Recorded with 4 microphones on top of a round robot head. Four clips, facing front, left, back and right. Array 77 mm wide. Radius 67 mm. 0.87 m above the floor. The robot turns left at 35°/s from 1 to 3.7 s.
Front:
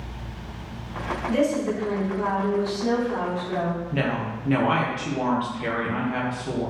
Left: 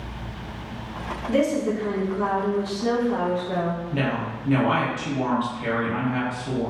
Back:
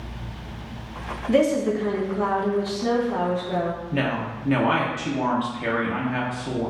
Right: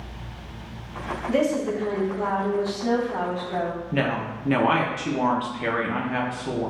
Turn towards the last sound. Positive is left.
turn(degrees=-95)